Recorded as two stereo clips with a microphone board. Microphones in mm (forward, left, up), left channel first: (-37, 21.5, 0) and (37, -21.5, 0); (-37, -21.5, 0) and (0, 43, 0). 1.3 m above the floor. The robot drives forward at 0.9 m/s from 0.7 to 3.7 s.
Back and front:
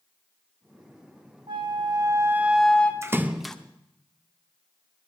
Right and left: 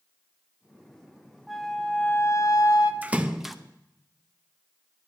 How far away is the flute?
About 1.0 m.